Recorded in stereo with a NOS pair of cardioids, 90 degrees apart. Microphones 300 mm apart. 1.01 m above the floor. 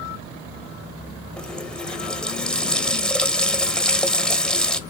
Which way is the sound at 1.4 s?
5° left.